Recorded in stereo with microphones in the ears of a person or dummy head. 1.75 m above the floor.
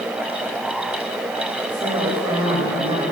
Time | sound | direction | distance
1.7 | a woman speaking | 25° right (ahead or behind) | 9 m